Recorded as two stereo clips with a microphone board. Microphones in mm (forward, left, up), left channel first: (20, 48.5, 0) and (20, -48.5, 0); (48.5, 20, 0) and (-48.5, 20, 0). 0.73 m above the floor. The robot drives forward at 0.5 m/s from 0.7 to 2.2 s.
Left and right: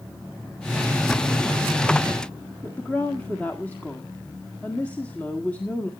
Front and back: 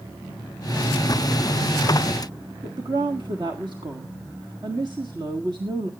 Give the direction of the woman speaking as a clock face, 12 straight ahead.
7 o'clock.